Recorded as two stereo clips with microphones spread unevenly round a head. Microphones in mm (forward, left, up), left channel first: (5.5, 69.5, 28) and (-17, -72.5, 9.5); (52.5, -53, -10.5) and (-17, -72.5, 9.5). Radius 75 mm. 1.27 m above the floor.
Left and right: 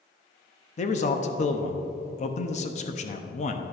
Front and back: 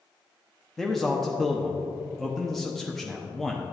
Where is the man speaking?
80° left, 0.7 m.